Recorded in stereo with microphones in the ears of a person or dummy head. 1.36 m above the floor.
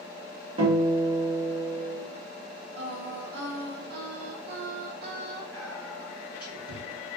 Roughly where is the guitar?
Right.